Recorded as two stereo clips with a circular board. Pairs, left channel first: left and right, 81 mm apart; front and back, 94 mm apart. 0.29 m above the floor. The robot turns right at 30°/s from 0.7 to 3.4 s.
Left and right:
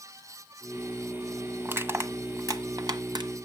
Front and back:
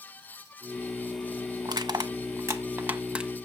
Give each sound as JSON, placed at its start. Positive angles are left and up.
{"t": 1.6, "sound": "crushing", "azimuth_deg": -150, "distance_m": 1.0}